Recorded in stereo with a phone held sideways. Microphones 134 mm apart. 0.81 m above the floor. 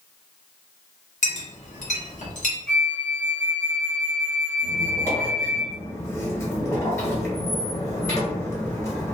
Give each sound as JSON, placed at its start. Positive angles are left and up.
{"t": 1.2, "sound": "a clink", "side_deg": 65, "distance_m": 0.9}
{"t": 2.7, "sound": "a flute", "side_deg": 10, "distance_m": 1.0}
{"t": 4.6, "sound": "a squeak", "side_deg": 20, "distance_m": 1.1}